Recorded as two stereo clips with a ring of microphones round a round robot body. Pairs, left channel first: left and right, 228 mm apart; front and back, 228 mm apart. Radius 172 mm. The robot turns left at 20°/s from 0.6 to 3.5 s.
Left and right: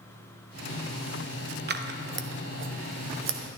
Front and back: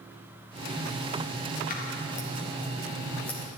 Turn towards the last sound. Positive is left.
turn(degrees=-85)